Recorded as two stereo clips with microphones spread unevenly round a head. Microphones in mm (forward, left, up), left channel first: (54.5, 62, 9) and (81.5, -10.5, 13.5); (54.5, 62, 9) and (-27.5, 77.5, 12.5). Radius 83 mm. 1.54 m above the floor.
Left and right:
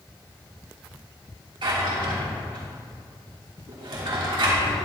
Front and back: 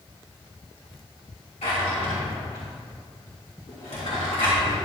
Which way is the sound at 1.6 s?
65° right.